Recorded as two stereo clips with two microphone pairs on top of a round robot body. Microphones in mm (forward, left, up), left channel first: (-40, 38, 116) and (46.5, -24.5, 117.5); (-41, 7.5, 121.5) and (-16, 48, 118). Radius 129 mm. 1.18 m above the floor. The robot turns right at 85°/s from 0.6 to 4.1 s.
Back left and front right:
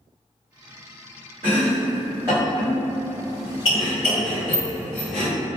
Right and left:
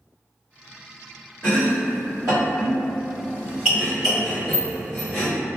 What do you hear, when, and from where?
1.4 s chopping: 55° right, 0.9 m; by 5.3 s 170° left, 0.9 m